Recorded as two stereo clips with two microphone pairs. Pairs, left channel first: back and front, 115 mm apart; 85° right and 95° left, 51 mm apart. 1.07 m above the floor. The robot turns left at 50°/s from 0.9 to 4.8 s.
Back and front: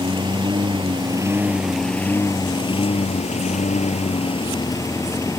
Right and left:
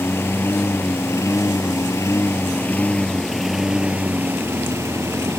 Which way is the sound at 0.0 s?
45° right.